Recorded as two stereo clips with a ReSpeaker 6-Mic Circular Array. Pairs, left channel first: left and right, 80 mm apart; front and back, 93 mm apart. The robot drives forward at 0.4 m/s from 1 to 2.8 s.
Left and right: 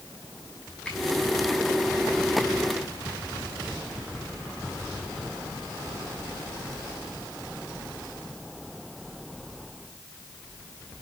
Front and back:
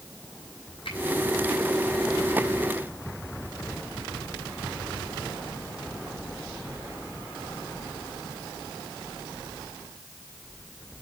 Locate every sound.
0.8 s a finger snap: 10° left, 7 m